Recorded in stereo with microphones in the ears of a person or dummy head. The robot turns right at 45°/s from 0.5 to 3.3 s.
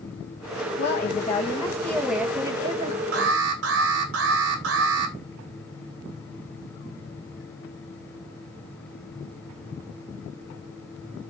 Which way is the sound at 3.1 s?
60° right (ahead or behind).